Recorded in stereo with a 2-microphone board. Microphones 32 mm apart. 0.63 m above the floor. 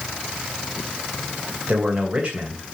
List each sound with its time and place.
1.7 s a man speaking: 35° right (ahead or behind), 3 m